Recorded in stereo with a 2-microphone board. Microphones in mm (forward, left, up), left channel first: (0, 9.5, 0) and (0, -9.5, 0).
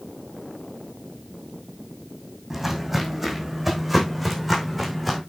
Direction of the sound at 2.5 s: 10° right (ahead or behind).